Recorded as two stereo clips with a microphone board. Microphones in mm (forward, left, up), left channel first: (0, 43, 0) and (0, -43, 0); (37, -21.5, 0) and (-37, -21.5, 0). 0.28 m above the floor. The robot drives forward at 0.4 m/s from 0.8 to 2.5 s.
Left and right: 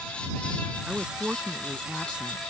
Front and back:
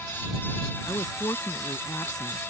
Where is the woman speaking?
10° right.